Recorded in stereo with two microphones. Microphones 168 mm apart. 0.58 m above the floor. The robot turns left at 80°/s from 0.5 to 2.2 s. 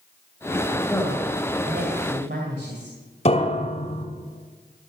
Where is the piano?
35° left (ahead or behind), 1.7 m.